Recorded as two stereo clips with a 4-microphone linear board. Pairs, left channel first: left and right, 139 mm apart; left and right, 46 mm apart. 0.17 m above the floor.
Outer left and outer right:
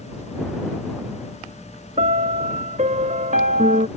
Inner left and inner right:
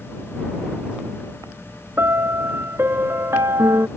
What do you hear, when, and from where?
2.0 s a piano: 60° right (ahead or behind)